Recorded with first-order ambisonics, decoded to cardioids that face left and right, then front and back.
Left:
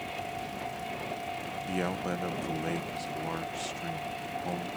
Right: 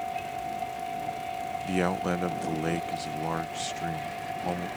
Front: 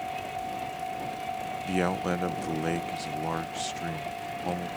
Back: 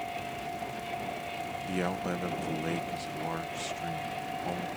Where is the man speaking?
45° right.